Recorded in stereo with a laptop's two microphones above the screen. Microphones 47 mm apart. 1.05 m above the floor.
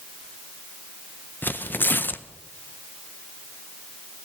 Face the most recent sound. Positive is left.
turn(degrees=45)  # may be behind; listen again after turning